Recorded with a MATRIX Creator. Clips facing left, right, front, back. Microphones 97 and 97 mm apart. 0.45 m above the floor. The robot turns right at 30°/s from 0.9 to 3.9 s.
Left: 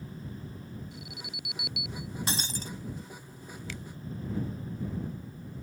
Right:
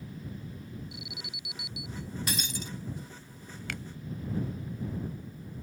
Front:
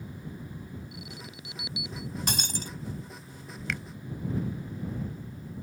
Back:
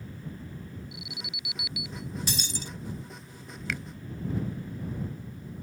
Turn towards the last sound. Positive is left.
turn(degrees=-85)